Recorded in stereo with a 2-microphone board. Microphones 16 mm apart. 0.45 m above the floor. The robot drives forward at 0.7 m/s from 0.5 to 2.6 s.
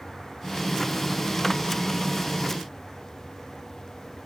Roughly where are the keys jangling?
No keys jangling in this recording.